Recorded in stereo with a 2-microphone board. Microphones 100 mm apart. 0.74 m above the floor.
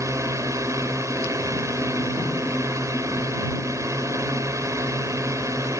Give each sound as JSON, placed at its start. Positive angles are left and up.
{"t": 0.0, "sound": "a drone", "side_deg": -30}